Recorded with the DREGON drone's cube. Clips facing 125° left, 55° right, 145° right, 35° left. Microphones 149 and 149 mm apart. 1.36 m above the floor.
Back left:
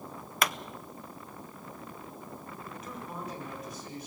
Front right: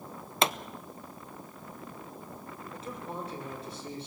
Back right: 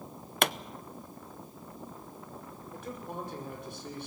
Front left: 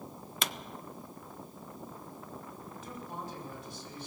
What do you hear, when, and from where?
0.4 s a pop: 120° right, 0.5 m
2.7 s a man speaking: 115° right, 5.5 m